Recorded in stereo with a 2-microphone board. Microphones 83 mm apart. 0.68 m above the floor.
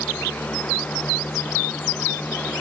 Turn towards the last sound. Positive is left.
No sound to turn to.